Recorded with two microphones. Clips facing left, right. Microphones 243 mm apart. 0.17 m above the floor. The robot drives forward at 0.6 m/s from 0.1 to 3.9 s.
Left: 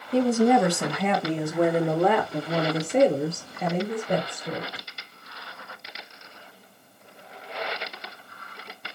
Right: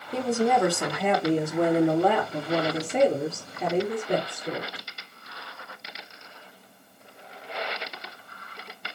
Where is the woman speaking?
Centre (ahead or behind), 1.1 m.